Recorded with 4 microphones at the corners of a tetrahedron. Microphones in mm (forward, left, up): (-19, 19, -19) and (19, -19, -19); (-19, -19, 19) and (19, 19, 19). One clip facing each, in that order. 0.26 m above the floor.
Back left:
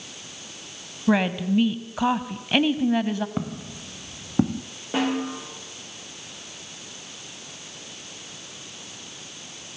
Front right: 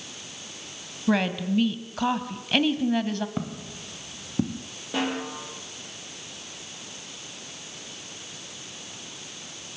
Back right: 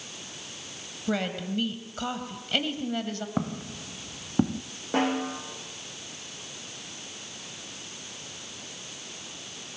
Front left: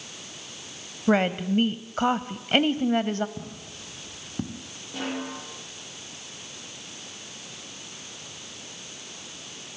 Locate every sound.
1.1 s a woman speaking: 65° left, 1.2 m
3.4 s footsteps: 145° right, 1.5 m; by 4.6 s 165° left, 1.3 m
4.9 s a snare drum: 155° right, 9 m